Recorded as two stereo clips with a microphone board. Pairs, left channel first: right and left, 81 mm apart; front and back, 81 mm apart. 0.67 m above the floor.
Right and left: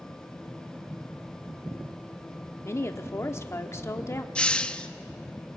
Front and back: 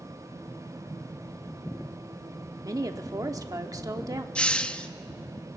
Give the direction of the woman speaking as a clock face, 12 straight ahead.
5 o'clock.